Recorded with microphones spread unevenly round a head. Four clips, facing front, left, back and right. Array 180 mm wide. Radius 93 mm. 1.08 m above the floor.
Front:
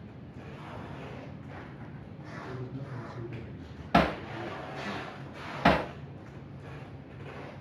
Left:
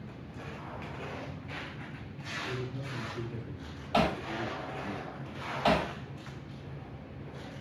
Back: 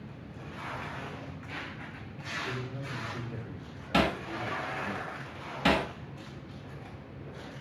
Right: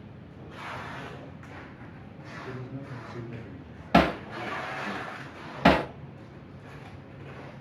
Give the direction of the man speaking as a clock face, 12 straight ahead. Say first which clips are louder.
Left 1 dB, even; 5 o'clock.